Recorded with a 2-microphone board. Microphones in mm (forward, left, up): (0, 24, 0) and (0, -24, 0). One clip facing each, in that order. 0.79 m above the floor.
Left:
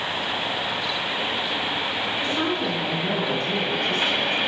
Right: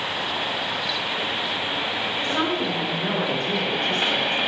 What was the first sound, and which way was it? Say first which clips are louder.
A woman speaking: right 2 dB; 40° right (ahead or behind).